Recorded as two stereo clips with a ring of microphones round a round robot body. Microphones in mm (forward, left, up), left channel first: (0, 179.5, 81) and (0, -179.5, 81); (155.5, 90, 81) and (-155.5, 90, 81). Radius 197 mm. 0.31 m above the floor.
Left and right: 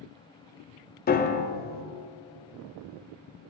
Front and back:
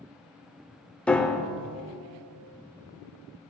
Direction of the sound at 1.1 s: 85° left.